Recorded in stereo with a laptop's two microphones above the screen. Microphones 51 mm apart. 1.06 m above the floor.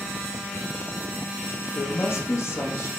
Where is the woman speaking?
70° left (ahead or behind), 0.9 m.